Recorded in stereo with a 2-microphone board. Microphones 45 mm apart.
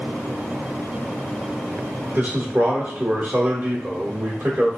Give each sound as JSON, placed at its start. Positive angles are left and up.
{"t": 2.1, "sound": "a man speaking", "side_deg": -35, "distance_m": 1.2}